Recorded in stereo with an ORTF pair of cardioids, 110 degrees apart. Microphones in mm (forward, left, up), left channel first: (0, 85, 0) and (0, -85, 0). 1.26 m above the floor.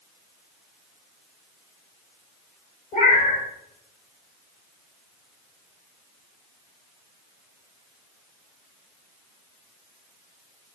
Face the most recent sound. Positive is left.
turn(degrees=60)